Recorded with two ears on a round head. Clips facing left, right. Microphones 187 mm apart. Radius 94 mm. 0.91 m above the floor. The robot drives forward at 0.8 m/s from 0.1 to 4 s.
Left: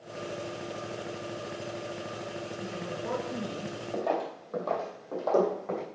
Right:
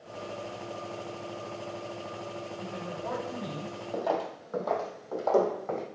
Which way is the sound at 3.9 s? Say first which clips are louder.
Even; 10° right (ahead or behind).